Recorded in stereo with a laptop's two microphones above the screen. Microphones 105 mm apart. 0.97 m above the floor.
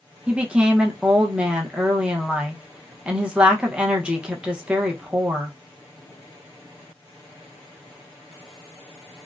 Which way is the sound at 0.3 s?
10° right (ahead or behind).